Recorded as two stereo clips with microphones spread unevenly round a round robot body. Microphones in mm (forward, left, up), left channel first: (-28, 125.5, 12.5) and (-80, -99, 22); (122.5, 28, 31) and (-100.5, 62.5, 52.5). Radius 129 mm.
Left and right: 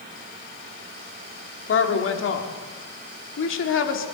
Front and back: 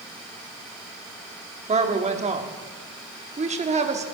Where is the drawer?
No drawer in this recording.